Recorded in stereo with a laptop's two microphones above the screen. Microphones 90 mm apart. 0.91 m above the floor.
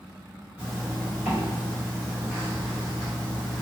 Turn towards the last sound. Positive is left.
turn(degrees=-15)  # may be behind; listen again after turning